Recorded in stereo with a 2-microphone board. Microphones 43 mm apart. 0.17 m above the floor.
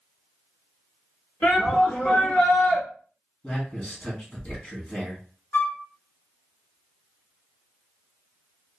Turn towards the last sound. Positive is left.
turn(degrees=50)  # may be behind; listen again after turning